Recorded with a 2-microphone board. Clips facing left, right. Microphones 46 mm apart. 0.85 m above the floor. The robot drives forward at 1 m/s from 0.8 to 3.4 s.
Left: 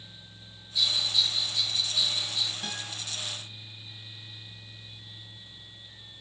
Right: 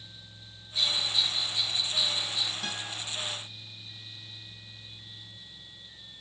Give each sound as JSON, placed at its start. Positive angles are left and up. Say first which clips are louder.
{"t": 0.8, "sound": "a bell", "louder": "left 1 dB", "side_deg": -35, "distance_m": 1.1}
{"t": 2.6, "sound": "a guitar", "louder": "right 1 dB", "side_deg": 5, "distance_m": 6.0}